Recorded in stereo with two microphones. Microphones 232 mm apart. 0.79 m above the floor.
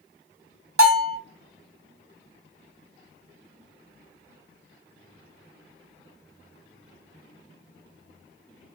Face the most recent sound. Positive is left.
turn(degrees=-75)  # may be behind; listen again after turning